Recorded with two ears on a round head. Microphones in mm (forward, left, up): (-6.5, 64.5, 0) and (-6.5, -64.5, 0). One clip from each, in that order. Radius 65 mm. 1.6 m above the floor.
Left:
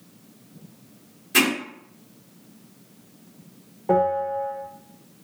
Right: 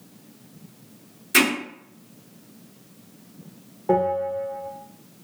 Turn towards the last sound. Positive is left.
turn(degrees=5)  # may be behind; listen again after turning